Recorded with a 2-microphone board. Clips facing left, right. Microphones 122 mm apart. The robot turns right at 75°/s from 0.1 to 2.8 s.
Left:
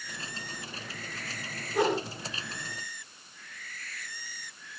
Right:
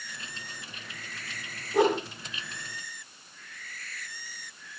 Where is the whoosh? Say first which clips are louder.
Right 3 dB; 25° right (ahead or behind), 7 m; by 2.0 s 5° right (ahead or behind), 7 m.